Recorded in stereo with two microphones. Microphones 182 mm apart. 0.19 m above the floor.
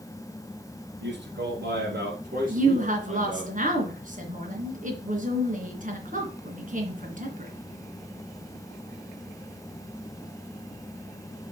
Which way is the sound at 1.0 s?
70° right (ahead or behind).